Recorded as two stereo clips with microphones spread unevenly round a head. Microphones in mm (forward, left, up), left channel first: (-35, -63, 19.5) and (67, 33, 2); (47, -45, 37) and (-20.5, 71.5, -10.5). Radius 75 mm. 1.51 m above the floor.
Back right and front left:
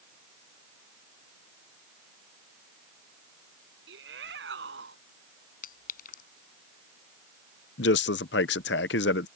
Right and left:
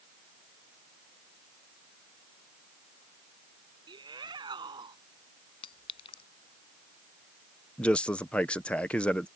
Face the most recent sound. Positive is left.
turn(degrees=-145)